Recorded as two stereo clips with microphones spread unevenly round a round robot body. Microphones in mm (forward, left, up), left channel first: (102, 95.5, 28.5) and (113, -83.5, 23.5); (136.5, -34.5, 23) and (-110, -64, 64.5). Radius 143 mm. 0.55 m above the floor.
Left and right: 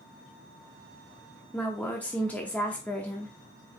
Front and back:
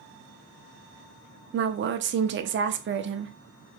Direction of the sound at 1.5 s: 175° left.